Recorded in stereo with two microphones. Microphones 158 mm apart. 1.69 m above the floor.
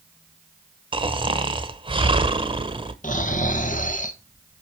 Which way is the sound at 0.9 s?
30° right (ahead or behind).